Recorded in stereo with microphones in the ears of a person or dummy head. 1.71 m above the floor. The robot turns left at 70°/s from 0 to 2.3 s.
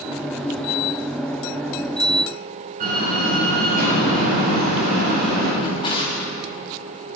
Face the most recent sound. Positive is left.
turn(degrees=25)  # may be behind; listen again after turning